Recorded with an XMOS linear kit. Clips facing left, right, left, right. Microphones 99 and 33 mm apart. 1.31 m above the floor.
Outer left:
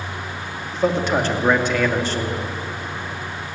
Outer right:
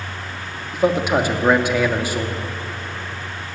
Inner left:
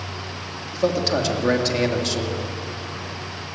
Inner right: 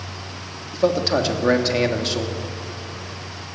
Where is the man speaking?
10° right (ahead or behind), 2.5 m.